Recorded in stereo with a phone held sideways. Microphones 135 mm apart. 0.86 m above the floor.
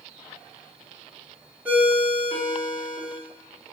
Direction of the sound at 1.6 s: 15° right (ahead or behind).